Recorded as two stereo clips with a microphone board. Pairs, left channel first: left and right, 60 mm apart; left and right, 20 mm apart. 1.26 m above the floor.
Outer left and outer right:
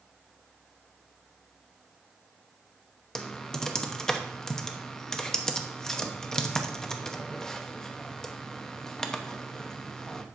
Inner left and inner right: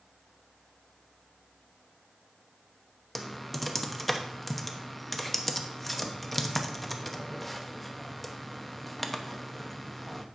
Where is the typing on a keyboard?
5° left (ahead or behind), 0.9 m.